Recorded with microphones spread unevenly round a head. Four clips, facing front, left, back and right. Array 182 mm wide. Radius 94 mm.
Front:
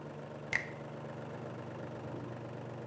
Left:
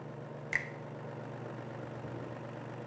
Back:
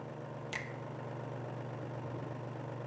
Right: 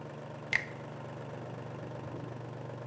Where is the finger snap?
20° right, 0.5 m.